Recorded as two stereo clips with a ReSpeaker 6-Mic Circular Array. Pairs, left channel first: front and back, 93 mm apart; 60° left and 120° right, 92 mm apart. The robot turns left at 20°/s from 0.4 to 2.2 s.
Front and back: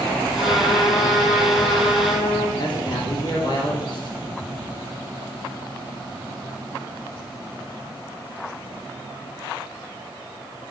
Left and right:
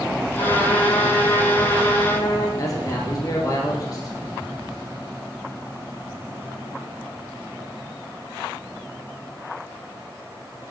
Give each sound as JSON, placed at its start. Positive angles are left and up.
{"t": 0.4, "sound": "a trumpet", "azimuth_deg": 45, "distance_m": 3.0}
{"t": 2.6, "sound": "a man speaking", "azimuth_deg": 20, "distance_m": 2.5}